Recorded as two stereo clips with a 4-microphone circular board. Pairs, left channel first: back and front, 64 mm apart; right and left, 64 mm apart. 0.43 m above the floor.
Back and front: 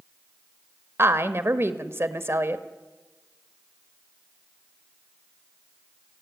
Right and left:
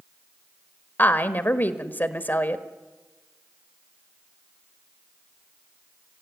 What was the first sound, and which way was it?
A woman speaking, 40° right.